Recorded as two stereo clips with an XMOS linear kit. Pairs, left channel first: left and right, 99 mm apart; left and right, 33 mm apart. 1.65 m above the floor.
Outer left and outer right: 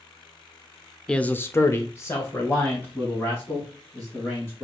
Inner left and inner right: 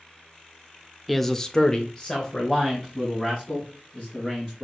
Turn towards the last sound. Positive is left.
turn(degrees=20)  # may be behind; listen again after turning